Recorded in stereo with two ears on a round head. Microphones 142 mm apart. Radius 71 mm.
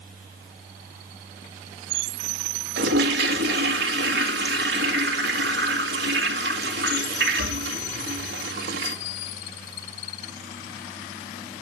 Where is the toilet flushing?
75° right (ahead or behind), 1.7 m.